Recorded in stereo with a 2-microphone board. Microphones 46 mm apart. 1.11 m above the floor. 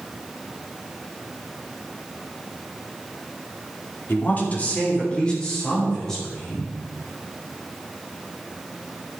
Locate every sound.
4.1 s a woman speaking: 45° left (ahead or behind), 2.5 m; by 6.7 s 10° left (ahead or behind), 5.5 m